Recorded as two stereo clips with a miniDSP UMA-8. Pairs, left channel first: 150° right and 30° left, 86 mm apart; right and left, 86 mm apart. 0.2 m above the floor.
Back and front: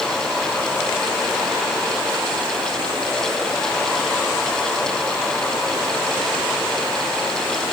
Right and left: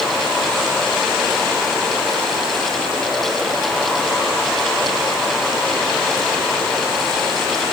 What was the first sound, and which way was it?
Only background noise.